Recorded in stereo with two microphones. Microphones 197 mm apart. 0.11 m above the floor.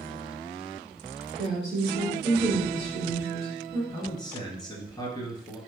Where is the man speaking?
20° left (ahead or behind), 1.4 m.